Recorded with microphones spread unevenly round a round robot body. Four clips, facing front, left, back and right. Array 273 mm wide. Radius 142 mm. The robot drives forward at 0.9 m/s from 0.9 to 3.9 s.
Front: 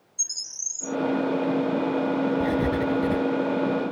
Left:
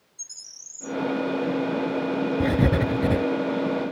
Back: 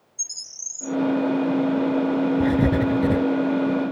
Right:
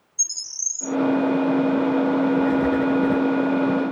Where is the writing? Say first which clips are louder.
Right 3 dB, back 4 dB; 120° left; by 3.2 s 130° left.